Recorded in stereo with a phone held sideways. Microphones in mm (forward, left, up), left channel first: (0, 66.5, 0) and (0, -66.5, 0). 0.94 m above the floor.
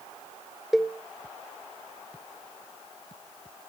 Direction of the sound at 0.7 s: Centre (ahead or behind).